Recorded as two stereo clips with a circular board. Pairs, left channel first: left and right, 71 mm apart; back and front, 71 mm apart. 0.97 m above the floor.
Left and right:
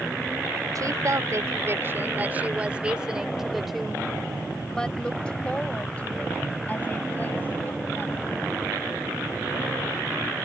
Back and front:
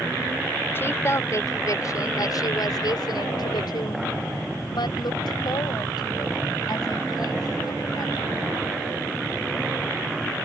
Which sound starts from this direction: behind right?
A woman speaking, at 0.8 s.